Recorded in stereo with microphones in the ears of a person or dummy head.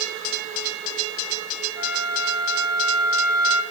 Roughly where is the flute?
Right.